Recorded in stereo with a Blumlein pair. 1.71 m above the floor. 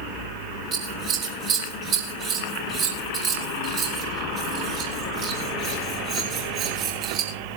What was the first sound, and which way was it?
Scissors, 35° right.